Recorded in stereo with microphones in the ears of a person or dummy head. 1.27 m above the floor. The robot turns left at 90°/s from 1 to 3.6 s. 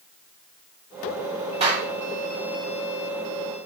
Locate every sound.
1.6 s a clap: 40° right (ahead or behind), 4.5 m; by 1.9 s 10° right (ahead or behind), 4.5 m